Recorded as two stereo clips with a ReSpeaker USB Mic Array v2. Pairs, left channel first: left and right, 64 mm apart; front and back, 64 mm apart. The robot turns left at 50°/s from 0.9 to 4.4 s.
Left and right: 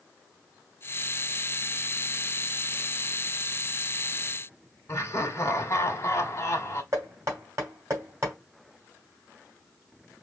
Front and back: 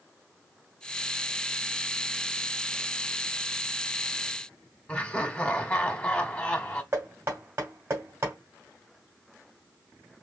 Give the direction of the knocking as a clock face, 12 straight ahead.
4 o'clock.